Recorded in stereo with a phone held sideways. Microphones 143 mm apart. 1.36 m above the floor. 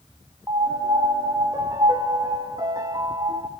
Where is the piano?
25° right (ahead or behind), 0.8 m.